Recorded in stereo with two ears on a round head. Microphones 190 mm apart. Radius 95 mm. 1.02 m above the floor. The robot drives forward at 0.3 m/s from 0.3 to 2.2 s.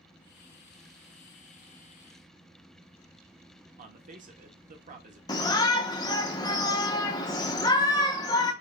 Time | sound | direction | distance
3.8 | a man speaking | 35° right (ahead or behind) | 0.6 m
5.3 | a shout | 20° left (ahead or behind) | 0.7 m